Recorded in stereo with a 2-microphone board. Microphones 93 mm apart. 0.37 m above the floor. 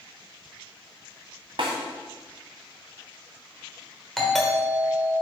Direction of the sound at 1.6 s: 65° right (ahead or behind).